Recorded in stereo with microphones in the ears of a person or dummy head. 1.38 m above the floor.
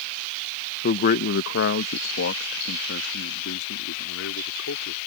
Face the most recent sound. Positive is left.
turn(degrees=80)